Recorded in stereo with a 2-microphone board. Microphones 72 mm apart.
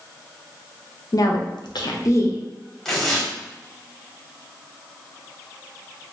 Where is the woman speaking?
50° left (ahead or behind), 0.6 m; by 2.4 s 35° left (ahead or behind), 0.8 m.